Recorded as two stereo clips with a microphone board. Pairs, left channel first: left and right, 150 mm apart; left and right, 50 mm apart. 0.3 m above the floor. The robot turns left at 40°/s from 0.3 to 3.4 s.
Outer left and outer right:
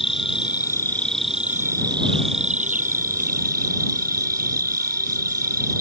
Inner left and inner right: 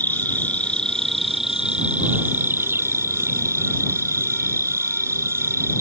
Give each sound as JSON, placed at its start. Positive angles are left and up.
{"t": 0.0, "sound": "an insect", "azimuth_deg": 40}